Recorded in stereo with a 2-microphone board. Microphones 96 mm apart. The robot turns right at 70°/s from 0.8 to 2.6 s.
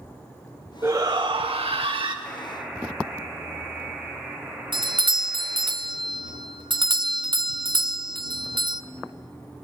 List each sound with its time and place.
0.8 s a shout: 150° right, 1.6 m; by 2.1 s 60° right, 1.6 m
2.2 s a buzzer: 15° left (ahead or behind), 2.5 m; by 5.7 s 10° right (ahead or behind), 2.5 m
4.7 s a doorbell: 55° right (ahead or behind), 0.5 m